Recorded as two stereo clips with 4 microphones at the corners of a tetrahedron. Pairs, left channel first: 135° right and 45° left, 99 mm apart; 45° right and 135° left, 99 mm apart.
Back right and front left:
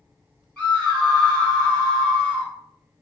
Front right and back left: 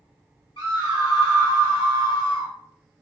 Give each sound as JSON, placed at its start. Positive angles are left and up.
{"t": 0.6, "sound": "a scream", "azimuth_deg": -55, "distance_m": 1.7}